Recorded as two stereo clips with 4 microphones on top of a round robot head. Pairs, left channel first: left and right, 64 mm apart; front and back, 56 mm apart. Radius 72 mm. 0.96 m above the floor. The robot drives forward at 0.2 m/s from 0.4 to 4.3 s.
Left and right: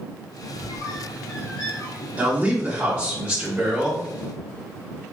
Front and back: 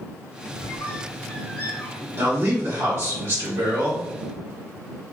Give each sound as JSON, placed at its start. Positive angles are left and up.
{"t": 0.6, "sound": "a squeak", "azimuth_deg": 50, "distance_m": 1.1}
{"t": 2.2, "sound": "a man speaking", "azimuth_deg": -155, "distance_m": 1.2}